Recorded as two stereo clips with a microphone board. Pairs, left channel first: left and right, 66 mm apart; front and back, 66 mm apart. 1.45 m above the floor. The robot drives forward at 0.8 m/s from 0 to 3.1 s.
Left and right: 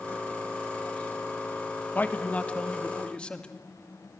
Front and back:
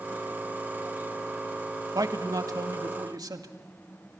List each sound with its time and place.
1.9 s a man speaking: 155° left, 1.4 m; by 3.5 s 165° left, 2.5 m